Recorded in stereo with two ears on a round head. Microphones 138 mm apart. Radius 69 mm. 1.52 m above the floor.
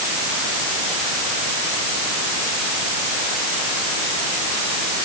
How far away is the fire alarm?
I don't hear a fire alarm.